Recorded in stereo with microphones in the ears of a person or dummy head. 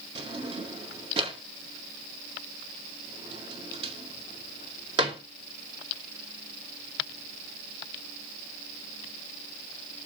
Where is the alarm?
No alarm in this recording.